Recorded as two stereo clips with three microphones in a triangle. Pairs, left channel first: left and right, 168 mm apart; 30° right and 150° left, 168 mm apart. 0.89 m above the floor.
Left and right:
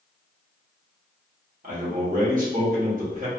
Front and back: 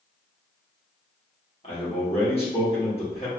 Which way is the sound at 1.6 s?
75° right.